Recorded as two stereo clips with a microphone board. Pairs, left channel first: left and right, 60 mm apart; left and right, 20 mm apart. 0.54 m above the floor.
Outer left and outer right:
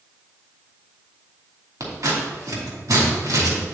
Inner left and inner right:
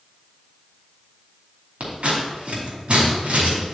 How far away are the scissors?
About 2.5 m.